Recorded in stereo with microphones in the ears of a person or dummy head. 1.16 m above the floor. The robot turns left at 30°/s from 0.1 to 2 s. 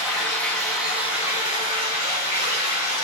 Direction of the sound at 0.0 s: 175° right.